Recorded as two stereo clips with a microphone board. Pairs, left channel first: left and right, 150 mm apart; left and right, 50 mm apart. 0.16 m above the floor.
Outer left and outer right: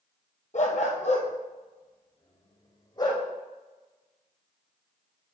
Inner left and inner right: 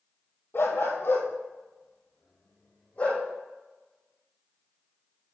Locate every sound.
0.5 s a dog barking: 60° left (ahead or behind), 1.7 m; by 3.2 s 25° left (ahead or behind), 2.5 m